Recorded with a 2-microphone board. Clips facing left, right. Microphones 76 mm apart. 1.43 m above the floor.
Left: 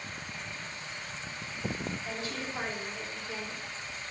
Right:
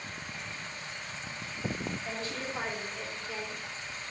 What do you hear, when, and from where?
2.0 s a woman speaking: 5° left (ahead or behind), 3.5 m; by 3.7 s 20° left (ahead or behind), 4 m